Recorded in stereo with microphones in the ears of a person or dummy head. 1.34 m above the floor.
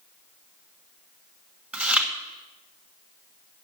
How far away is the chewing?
About 1.5 m.